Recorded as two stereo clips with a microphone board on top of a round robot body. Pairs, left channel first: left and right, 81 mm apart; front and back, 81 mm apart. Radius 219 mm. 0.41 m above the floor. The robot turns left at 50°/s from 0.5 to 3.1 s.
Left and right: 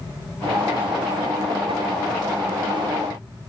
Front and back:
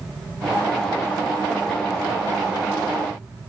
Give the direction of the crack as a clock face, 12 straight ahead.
No crack in this recording.